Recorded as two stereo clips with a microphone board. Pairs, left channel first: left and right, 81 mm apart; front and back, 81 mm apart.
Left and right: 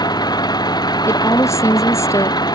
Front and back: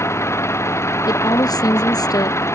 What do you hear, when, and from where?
0.0 s an engine running: 55° left
1.1 s a woman speaking: 40° left